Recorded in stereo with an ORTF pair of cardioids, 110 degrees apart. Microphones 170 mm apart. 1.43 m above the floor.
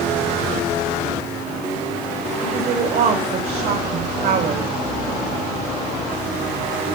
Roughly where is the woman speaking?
Ahead right.